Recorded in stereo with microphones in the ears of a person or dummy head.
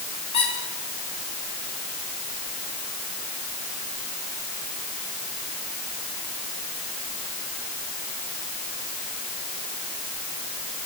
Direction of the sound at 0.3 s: 30° left (ahead or behind).